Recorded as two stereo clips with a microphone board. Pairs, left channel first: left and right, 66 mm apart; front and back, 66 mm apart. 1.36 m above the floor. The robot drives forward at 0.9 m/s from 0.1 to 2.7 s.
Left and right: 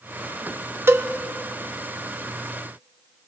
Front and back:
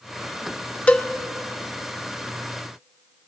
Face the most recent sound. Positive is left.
turn(degrees=-160)